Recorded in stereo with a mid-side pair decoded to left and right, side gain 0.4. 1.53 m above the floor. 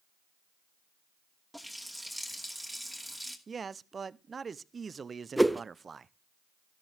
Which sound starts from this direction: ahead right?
A man speaking, at 3.5 s.